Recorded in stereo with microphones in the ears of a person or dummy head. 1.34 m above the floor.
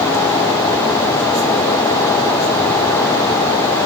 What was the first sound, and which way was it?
Only background noise.